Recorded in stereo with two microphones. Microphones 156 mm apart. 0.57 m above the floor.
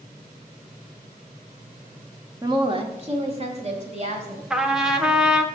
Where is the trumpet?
5° right (ahead or behind), 1.0 m.